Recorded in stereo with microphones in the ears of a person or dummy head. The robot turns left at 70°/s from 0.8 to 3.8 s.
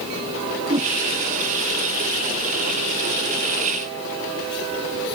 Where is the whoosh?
25° right (ahead or behind); by 0.9 s 15° right (ahead or behind).